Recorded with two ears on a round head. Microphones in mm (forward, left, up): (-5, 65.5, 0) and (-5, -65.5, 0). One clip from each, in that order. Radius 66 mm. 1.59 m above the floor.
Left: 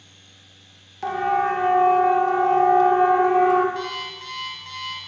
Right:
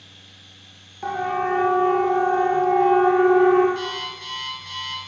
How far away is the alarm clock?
About 5 m.